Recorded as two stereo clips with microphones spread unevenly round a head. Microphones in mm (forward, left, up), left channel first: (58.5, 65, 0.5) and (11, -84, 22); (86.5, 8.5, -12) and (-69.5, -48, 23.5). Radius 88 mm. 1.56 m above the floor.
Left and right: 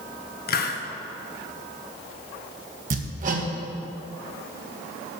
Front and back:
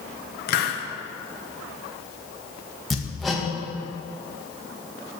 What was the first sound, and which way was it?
A hiss, 50° left.